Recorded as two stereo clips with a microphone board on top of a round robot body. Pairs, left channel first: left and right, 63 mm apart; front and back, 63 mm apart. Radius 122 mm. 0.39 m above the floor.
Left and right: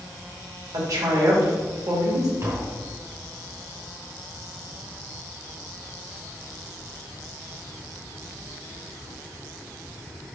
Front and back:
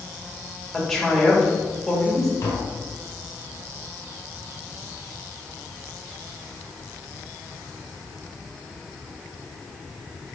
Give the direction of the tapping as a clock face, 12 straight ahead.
1 o'clock.